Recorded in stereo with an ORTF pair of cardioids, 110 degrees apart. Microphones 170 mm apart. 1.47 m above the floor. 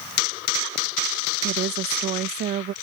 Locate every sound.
1.4 s a woman speaking: 70° right